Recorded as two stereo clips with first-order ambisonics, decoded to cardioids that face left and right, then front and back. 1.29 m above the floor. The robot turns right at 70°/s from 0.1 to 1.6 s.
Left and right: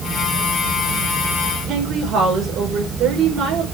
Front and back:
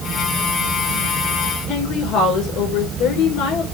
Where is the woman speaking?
40° right, 5.5 m.